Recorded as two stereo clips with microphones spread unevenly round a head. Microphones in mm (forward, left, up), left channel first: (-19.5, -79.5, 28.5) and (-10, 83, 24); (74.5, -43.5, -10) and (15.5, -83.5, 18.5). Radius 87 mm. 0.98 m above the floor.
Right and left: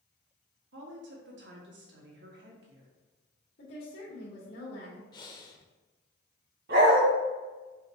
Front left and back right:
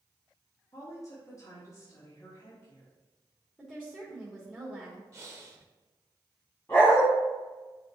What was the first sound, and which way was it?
A woman speaking, 95° left.